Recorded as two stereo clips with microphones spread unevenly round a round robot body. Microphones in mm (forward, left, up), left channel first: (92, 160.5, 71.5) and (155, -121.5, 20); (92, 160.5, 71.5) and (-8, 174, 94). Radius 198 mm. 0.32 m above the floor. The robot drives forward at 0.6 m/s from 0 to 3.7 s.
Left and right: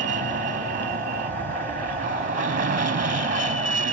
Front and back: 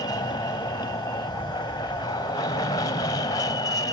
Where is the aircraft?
30° right; by 3.9 s 35° right.